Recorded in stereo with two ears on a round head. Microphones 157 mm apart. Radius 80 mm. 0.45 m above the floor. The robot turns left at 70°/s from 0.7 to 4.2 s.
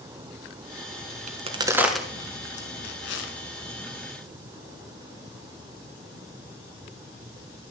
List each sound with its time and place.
1.3 s a crack: 45° right (ahead or behind), 1.4 m; by 3.3 s 80° left, 1.4 m